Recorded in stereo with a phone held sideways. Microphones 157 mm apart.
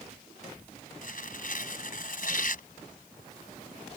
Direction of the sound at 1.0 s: 65° left (ahead or behind).